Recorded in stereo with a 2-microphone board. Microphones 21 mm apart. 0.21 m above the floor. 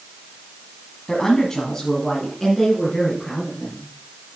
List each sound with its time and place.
1.1 s a woman speaking: 30° left (ahead or behind), 1.5 m; by 3.8 s 10° left (ahead or behind), 4 m